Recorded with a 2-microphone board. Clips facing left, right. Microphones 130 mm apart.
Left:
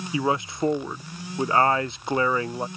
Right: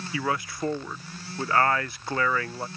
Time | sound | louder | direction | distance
0.1 | a man speaking | left 4 dB | 20° left (ahead or behind) | ?